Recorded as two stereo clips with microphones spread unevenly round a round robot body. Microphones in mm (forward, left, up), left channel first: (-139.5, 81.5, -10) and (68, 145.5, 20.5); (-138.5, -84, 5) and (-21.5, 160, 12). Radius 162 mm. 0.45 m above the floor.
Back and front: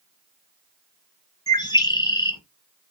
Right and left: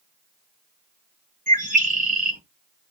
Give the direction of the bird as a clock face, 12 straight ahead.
8 o'clock.